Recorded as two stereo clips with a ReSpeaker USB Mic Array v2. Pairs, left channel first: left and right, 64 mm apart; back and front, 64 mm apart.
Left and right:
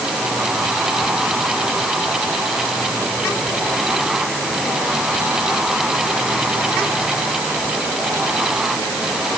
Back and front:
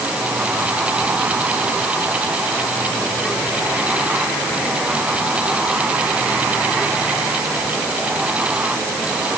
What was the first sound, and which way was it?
Only background noise.